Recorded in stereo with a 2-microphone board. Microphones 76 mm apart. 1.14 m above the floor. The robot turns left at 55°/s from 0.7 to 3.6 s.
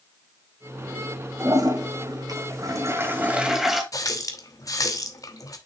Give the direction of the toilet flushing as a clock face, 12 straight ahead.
2 o'clock.